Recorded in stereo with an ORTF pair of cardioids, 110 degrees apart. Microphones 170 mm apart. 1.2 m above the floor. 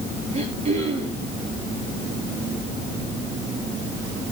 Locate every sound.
0.3 s throat clearing: 40° right, 9.5 m